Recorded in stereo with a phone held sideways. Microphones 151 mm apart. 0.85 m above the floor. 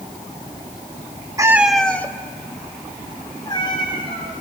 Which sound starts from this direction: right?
A cat meowing, at 1.4 s.